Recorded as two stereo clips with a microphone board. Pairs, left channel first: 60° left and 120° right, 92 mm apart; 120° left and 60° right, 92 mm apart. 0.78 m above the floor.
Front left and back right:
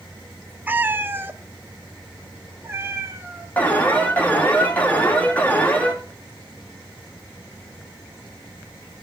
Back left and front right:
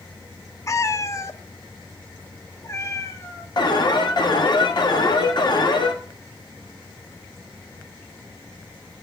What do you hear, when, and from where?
0.7 s a cat meowing: 170° left, 0.6 m; by 3.5 s 175° left, 2 m
3.6 s an alarm: 130° left, 2 m